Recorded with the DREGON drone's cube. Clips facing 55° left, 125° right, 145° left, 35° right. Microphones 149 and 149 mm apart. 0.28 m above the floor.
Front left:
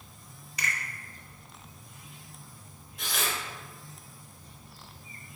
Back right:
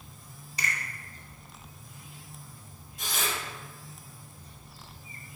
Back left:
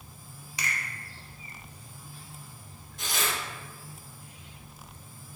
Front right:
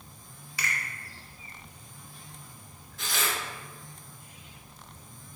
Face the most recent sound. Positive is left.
turn(degrees=80)